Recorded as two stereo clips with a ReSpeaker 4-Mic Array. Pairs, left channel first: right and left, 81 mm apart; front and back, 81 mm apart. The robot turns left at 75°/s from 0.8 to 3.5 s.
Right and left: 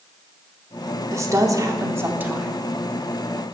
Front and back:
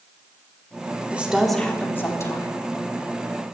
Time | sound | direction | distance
1.1 | a woman speaking | 115° left | 0.9 m